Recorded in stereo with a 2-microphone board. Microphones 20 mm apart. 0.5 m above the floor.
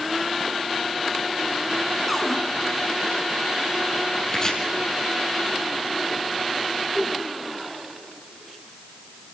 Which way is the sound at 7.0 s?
40° left (ahead or behind).